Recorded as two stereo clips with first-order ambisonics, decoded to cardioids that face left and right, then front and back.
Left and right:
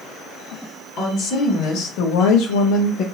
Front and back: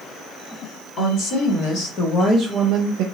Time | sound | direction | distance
1.0 | a woman speaking | 35° left | 1.7 m